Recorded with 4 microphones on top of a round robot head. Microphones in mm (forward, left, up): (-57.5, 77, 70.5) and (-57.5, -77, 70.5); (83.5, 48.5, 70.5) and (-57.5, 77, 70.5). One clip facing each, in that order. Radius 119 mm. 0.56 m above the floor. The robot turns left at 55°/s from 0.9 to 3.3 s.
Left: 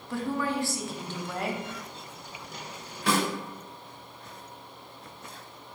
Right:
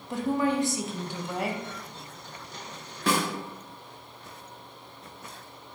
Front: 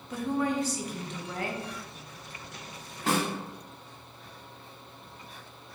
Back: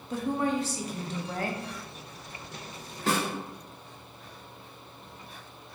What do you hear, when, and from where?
0.1 s a woman speaking: 150° right, 0.7 m; by 1.6 s 170° left, 0.7 m
3.1 s a snare drum: 90° right, 1.0 m; by 3.3 s 100° right, 1.0 m